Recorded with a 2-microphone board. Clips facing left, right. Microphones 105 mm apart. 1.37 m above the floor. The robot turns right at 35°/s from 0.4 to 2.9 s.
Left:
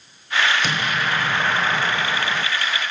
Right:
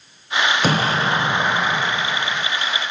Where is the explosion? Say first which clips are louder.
Right 5 dB; 45° right, 0.8 m; by 2.5 s 20° left, 0.8 m.